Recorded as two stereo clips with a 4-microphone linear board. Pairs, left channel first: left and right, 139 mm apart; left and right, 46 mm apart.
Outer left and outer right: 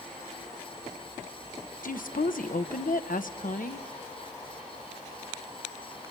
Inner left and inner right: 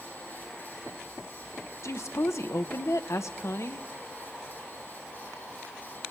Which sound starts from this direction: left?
A woman speaking, at 1.8 s.